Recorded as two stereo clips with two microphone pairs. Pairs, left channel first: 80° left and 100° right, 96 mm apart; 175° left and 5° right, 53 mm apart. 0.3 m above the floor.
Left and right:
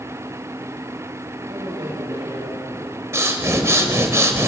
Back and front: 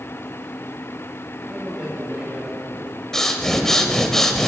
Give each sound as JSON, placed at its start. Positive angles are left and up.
{"t": 1.5, "sound": "a man speaking", "azimuth_deg": -80, "distance_m": 5.0}
{"t": 3.1, "sound": "breathing", "azimuth_deg": -110, "distance_m": 1.2}